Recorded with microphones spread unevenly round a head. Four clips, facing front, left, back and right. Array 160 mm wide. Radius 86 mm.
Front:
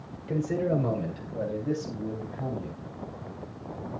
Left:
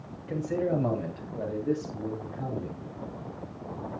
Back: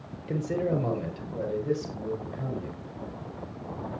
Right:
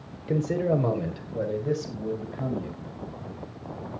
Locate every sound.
0.3 s a man speaking: 95° right, 5 m; by 2.8 s 90° right, 8.5 m